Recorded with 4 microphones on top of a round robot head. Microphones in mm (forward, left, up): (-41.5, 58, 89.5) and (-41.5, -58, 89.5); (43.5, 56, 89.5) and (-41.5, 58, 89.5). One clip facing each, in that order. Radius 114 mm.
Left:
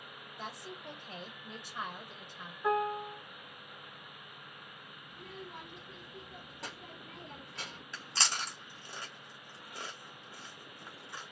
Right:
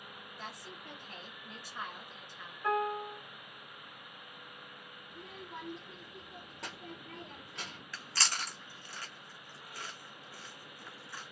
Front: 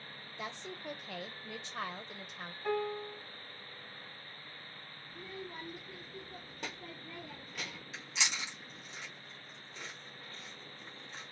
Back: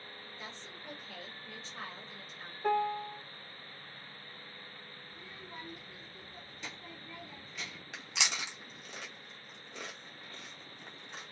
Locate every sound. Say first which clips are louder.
0.4 s a woman speaking: left 4 dB, front 8 dB; 15° left, 0.7 m
2.6 s a piano: left 1 dB, back 4 dB; 160° left, 1.5 m
5.1 s a child speaking: even, front 6 dB; straight ahead, 0.5 m
7.9 s chewing: left 1 dB, back 1 dB; 160° left, 0.6 m